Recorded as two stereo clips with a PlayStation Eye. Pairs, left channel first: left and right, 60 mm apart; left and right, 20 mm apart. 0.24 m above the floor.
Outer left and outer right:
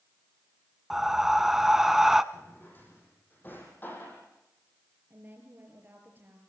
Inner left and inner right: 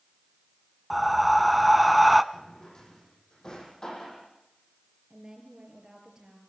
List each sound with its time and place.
0.9 s breathing: 5° right (ahead or behind), 0.7 m
2.3 s a drawer: 35° left (ahead or behind), 5.5 m
5.1 s a woman speaking: 35° right (ahead or behind), 6 m